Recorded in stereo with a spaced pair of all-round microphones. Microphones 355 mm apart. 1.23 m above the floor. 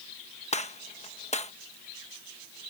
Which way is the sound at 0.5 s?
20° left (ahead or behind).